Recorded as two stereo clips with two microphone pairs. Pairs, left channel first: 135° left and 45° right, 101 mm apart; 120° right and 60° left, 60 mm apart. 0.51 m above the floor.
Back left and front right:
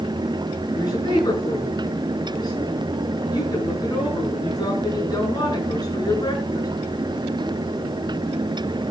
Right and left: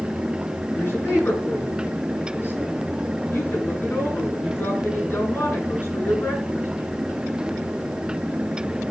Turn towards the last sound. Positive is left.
turn(degrees=-175)